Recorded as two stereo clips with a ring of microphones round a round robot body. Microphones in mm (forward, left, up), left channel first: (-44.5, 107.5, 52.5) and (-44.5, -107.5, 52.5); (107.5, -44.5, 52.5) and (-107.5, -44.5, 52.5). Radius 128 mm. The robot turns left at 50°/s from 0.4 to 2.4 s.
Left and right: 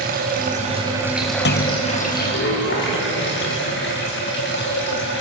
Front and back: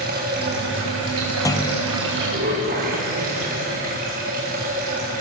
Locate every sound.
0.0 s running water: 135° right, 8 m; by 5.2 s 125° left, 8 m
1.4 s a clunk: 75° left, 1.2 m; by 1.8 s 55° left, 1.2 m